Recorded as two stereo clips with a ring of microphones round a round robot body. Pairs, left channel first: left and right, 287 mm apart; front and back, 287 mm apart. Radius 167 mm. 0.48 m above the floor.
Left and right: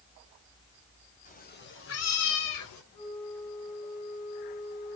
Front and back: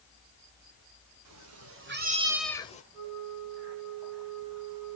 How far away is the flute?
About 7 m.